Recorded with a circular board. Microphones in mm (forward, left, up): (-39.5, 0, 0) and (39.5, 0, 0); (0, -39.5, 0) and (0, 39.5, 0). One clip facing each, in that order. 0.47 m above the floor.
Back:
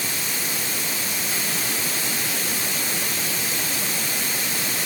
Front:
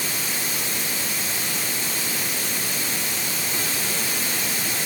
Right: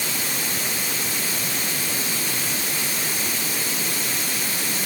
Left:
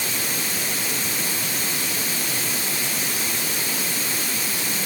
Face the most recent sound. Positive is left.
No sound to turn to.